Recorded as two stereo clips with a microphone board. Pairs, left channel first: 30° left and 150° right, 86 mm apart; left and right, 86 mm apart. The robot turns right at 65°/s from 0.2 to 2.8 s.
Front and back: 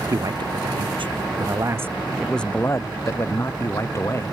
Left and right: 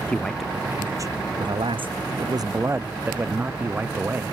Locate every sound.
0.1 s a man speaking: 170° left; by 4.3 s 25° right